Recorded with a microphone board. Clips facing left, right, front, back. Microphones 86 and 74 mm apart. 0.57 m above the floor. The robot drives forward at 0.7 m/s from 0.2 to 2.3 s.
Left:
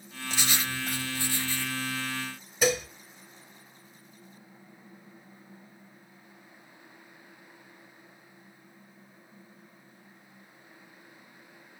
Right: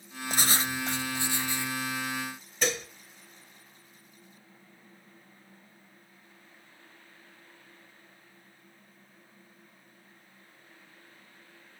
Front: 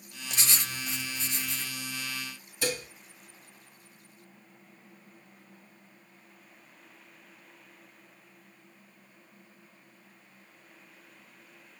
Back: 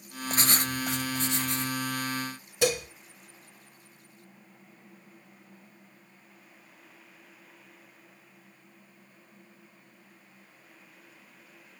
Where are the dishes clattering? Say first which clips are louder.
Left 5 dB, back 6 dB; 170° left, 1.6 m.